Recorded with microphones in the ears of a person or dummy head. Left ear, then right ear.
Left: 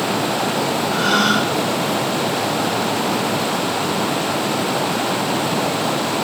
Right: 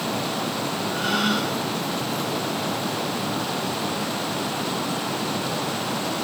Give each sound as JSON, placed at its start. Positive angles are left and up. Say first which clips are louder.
{"t": 0.9, "sound": "a gasp", "louder": "left 7 dB", "side_deg": 35, "distance_m": 1.3}